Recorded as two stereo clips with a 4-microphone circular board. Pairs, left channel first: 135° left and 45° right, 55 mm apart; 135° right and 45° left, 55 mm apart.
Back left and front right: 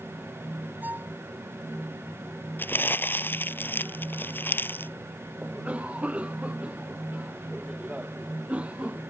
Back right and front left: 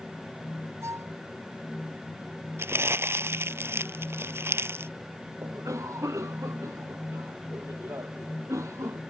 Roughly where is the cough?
Ahead left.